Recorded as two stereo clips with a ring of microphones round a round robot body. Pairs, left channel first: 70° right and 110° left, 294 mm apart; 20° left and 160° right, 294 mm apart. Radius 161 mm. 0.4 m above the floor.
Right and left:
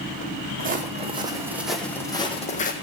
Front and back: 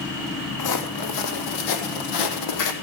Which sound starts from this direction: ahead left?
Footsteps, at 0.6 s.